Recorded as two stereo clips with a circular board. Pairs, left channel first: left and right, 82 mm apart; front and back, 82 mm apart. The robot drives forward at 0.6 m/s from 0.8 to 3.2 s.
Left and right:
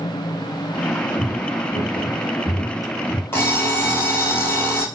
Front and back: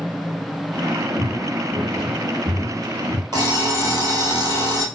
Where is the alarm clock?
150° left, 1.6 m.